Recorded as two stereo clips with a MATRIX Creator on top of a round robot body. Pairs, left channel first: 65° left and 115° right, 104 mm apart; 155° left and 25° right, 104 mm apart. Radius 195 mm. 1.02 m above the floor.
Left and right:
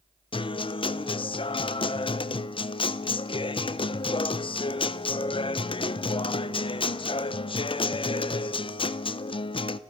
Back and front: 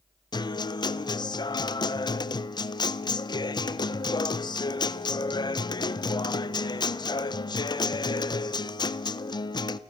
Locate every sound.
0.3 s a guitar: 105° left, 0.6 m